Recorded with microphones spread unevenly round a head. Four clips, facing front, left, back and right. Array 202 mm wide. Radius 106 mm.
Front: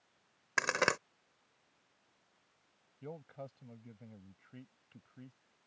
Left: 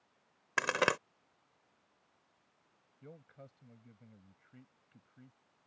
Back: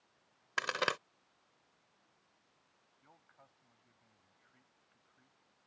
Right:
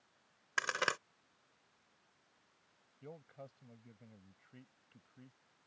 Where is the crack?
55° left.